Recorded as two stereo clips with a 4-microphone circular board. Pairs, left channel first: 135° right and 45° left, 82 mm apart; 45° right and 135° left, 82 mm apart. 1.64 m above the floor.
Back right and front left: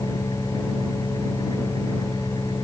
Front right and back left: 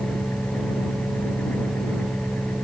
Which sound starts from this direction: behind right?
An engine running, at 0.0 s.